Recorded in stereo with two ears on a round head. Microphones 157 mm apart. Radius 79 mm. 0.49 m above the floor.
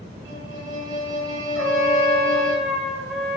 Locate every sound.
0.2 s a violin: 25° right (ahead or behind), 1.4 m
1.6 s a trumpet: 5° left (ahead or behind), 1.6 m